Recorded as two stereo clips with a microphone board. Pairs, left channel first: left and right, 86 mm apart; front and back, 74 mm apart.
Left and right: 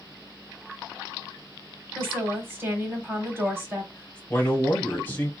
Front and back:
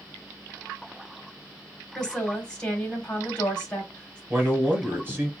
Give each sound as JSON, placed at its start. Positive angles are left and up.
{"t": 1.9, "sound": "a woman speaking", "azimuth_deg": -60, "distance_m": 1.1}
{"t": 4.3, "sound": "a man speaking", "azimuth_deg": 140, "distance_m": 1.3}